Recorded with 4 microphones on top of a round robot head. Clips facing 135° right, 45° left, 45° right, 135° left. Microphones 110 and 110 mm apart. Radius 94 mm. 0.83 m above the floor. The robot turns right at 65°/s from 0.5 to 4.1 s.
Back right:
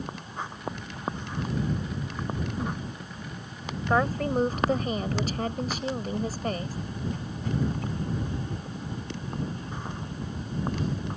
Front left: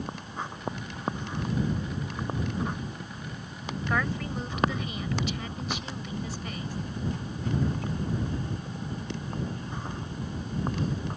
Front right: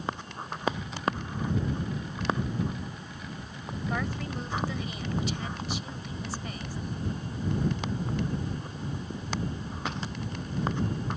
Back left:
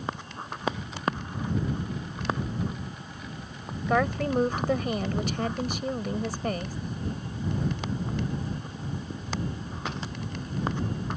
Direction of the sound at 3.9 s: 160° left.